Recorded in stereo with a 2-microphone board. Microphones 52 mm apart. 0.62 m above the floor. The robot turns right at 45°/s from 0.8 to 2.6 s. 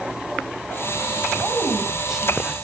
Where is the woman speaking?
35° right, 4 m; by 2.6 s 20° left, 4 m.